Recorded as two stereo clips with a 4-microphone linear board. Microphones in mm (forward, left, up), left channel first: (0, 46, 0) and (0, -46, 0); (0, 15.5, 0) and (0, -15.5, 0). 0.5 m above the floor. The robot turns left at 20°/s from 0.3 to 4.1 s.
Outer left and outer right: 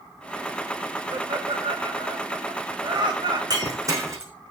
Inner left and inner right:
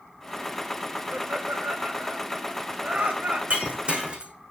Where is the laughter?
65° right (ahead or behind), 2.5 m; by 3.4 s 50° right (ahead or behind), 2.5 m.